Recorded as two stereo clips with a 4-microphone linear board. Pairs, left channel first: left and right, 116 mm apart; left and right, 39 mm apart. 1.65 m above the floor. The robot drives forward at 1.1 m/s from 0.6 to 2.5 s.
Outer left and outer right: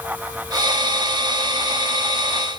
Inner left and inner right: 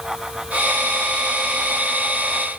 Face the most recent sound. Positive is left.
No sound to turn to.